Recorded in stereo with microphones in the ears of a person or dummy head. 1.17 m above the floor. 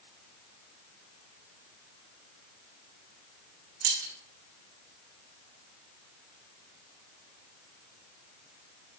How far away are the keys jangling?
About 1.5 m.